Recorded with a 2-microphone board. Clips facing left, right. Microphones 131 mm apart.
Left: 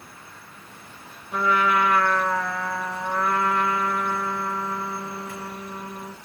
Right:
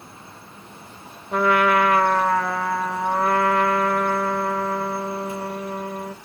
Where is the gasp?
I don't hear a gasp.